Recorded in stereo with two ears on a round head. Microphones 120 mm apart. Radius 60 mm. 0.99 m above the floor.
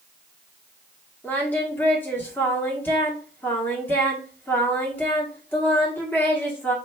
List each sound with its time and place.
1.2 s singing: 15° left (ahead or behind), 1.0 m